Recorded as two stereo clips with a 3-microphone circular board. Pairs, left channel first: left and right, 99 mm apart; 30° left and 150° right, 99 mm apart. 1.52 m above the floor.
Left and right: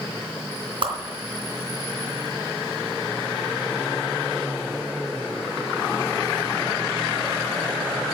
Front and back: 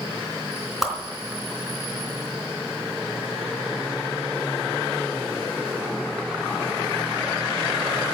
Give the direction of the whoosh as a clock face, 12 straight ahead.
2 o'clock.